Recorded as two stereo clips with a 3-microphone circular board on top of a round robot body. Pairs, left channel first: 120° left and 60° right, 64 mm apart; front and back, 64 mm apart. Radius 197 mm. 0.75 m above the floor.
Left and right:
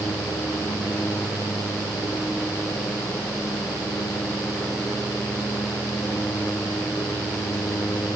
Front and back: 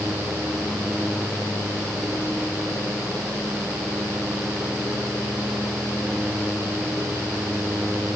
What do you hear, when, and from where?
Only background noise.